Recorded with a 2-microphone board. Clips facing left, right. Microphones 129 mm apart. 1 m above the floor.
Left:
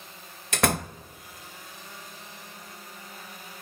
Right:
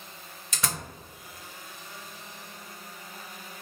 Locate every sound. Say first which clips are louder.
0.5 s a door slam: left 10 dB; 70° left (ahead or behind), 0.5 m